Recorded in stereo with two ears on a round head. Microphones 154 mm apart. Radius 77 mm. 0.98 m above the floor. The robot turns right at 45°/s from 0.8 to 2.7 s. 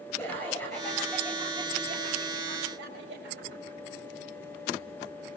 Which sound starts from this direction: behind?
Laughter, at 0.2 s.